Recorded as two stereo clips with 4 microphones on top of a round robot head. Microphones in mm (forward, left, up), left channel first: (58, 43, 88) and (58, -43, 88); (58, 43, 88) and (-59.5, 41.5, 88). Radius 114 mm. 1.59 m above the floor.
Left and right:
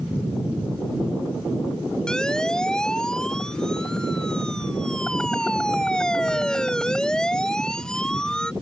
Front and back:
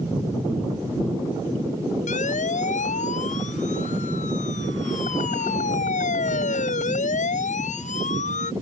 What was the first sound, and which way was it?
A siren, 10° left.